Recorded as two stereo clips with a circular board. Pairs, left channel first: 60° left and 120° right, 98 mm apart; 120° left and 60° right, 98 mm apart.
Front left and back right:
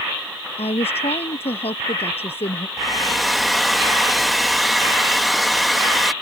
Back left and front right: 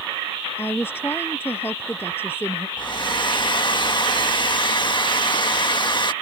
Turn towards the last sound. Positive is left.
turn(degrees=150)